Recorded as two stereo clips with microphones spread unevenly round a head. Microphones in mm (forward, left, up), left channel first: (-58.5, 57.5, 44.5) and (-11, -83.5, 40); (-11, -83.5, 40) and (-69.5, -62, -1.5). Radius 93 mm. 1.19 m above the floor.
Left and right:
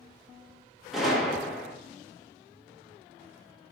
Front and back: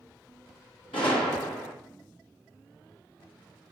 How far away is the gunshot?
About 1.1 m.